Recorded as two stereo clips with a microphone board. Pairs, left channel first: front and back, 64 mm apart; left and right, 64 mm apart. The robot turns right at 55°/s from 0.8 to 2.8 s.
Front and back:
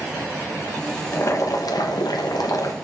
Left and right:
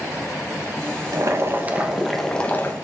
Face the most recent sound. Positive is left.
turn(degrees=40)